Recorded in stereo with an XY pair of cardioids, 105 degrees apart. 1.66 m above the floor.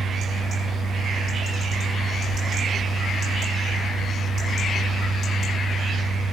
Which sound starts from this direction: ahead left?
A fan, at 0.0 s.